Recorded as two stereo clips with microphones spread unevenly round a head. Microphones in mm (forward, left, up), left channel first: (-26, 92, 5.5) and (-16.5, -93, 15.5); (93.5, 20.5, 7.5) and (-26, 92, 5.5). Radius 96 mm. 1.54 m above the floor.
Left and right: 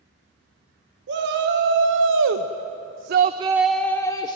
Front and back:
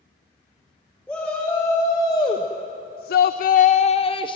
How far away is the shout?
About 1.9 m.